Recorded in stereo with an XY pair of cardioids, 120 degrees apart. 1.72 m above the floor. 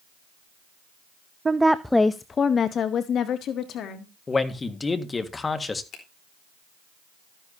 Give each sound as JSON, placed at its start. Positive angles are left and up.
{"t": 1.4, "sound": "a woman speaking", "azimuth_deg": -25, "distance_m": 0.5}
{"t": 4.3, "sound": "a man speaking", "azimuth_deg": 25, "distance_m": 1.6}
{"t": 5.9, "sound": "a finger snap", "azimuth_deg": 60, "distance_m": 4.0}